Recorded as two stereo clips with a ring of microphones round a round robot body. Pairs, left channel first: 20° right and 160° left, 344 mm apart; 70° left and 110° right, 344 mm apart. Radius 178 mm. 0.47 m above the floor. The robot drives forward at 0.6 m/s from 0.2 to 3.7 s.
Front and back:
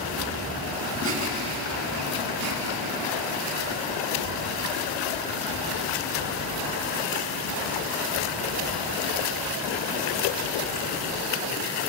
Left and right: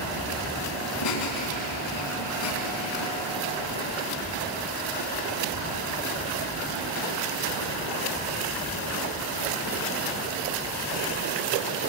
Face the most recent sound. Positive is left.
turn(degrees=110)